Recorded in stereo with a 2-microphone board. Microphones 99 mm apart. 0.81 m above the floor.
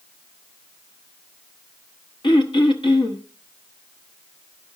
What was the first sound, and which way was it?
Throat clearing, 55° left (ahead or behind).